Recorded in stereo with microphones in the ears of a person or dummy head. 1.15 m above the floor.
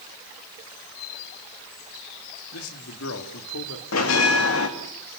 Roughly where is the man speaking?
Left.